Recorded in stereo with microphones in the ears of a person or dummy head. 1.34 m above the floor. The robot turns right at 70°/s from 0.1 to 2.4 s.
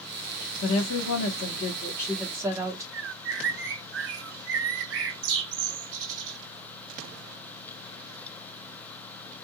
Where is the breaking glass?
I don't hear breaking glass.